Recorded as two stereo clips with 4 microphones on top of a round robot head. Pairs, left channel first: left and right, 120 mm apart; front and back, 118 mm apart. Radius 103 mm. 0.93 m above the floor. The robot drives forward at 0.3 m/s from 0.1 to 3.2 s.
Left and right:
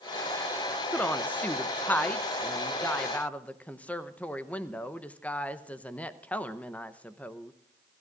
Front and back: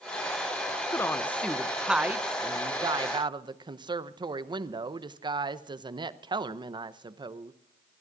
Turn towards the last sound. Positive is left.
turn(degrees=165)